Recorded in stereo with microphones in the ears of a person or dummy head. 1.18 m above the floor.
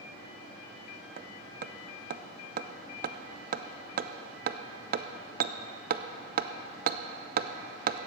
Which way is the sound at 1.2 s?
45° right (ahead or behind).